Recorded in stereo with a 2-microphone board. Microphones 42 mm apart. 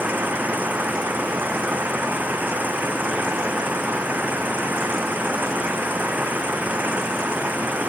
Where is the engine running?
45° right (ahead or behind).